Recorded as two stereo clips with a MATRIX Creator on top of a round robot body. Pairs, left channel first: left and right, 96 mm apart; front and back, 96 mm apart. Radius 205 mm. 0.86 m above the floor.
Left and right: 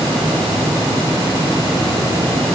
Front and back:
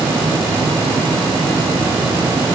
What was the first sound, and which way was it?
Only background noise.